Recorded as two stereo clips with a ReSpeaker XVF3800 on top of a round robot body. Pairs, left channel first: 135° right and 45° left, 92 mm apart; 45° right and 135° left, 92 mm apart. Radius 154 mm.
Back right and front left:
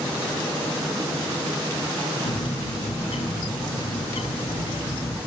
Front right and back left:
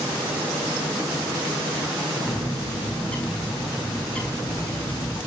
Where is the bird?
125° right, 6 m.